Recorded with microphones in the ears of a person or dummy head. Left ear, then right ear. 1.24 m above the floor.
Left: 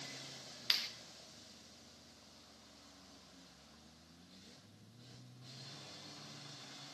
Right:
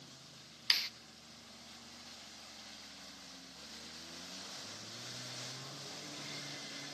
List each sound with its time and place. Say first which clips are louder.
0.7 s a clap: right 3 dB; 20° right (ahead or behind), 1.5 m